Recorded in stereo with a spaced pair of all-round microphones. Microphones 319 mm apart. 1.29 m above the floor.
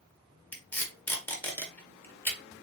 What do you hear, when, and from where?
0.5 s tape being pulled: 5° left (ahead or behind), 1.6 m